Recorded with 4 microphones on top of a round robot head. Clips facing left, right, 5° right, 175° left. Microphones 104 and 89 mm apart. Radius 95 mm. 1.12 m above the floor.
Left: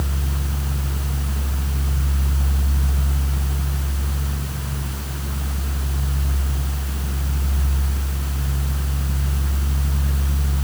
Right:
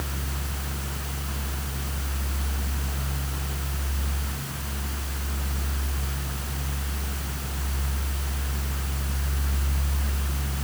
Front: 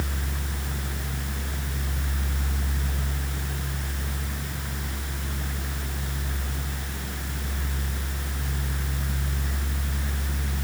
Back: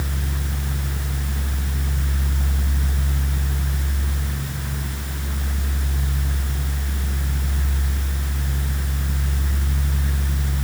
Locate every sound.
Only background noise.